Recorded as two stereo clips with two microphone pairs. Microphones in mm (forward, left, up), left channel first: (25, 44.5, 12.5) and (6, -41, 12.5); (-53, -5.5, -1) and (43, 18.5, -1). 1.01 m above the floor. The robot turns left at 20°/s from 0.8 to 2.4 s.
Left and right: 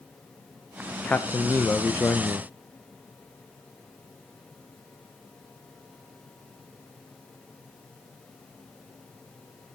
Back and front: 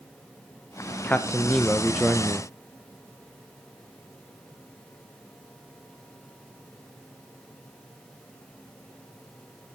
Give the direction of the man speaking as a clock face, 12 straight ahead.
8 o'clock.